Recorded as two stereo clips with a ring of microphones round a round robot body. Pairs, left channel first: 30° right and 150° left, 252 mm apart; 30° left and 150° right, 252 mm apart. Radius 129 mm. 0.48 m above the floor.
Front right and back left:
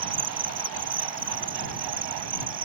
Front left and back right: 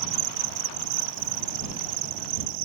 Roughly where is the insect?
Behind right.